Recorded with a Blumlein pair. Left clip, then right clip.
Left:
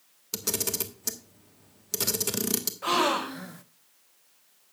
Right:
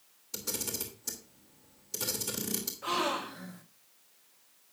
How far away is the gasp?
About 0.6 m.